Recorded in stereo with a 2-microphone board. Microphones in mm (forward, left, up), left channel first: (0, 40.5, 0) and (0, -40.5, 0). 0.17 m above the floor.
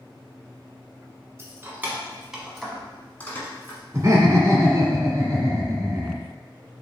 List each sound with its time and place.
1.4 s keys jangling: 30° right (ahead or behind), 1.1 m; by 3.8 s 30° left (ahead or behind), 1.3 m
3.9 s laughter: 35° right (ahead or behind), 1.3 m